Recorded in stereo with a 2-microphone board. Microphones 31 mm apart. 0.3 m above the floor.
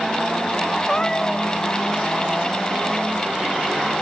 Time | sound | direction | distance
0.9 | a cat meowing | 20° left (ahead or behind) | ?